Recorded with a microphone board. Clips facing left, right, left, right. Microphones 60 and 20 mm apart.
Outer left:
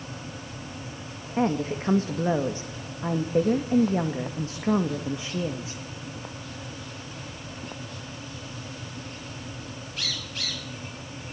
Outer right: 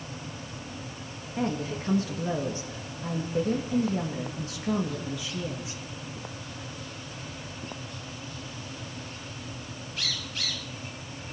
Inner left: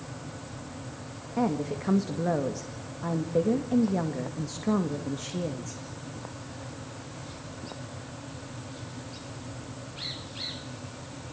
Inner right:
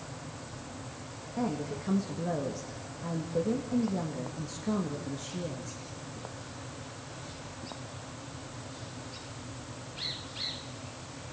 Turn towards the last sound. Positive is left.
turn(degrees=35)  # may be behind; listen again after turning